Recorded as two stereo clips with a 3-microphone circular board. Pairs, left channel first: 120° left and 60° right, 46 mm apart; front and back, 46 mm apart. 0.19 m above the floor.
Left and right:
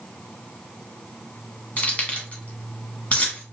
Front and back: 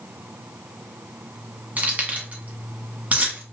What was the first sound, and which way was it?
Keys jangling, 155° left.